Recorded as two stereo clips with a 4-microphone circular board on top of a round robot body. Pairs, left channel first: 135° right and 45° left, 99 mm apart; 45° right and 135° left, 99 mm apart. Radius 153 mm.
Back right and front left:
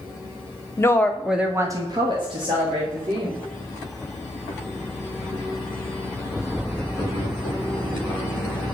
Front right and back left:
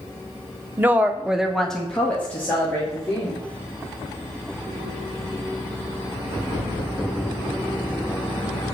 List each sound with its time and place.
0.8 s a woman speaking: 170° right, 1.1 m; by 3.4 s 25° left, 3 m